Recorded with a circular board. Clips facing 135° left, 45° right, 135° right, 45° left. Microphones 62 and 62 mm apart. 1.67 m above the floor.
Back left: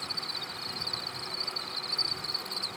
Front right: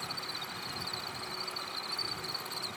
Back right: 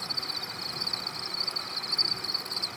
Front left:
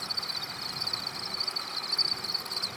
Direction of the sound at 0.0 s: 130° right.